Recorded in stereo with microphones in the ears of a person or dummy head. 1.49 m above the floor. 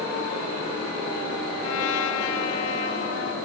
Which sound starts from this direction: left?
A trumpet, at 1.6 s.